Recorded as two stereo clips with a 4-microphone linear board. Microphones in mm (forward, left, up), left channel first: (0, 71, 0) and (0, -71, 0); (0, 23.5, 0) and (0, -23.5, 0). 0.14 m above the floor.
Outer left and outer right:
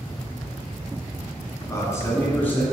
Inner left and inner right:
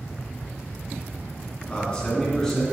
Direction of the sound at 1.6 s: 25° left (ahead or behind).